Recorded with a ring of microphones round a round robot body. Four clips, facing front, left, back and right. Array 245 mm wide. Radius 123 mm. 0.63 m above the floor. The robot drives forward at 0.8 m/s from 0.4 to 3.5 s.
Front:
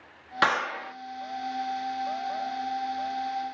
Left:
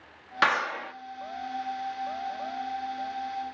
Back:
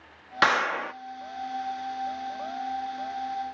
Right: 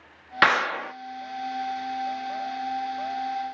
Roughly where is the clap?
Right.